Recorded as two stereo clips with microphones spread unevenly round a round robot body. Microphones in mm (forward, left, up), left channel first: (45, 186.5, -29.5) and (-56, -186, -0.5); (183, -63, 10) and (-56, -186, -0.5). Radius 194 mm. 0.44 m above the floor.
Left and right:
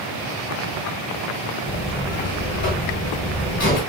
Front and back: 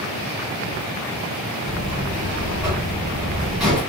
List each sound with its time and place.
1.6 s a buzzer: 120° left, 1.2 m